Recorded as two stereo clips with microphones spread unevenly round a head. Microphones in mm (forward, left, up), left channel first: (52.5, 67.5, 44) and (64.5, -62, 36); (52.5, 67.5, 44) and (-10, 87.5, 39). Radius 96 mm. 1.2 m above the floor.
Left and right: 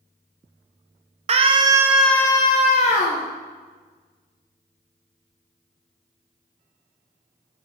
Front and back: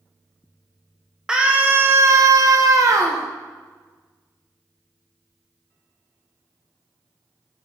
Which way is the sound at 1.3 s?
120° right.